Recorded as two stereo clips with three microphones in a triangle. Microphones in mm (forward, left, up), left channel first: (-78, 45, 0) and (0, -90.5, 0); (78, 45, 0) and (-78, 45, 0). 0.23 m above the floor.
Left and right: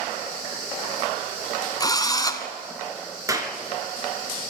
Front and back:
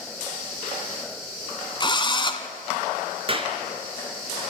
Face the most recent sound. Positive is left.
turn(degrees=-130)